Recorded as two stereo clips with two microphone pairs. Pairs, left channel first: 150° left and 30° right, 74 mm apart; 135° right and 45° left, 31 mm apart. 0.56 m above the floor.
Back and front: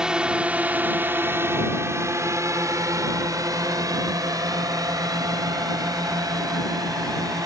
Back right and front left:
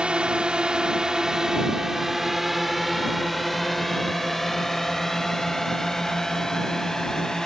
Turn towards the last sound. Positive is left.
turn(degrees=-60)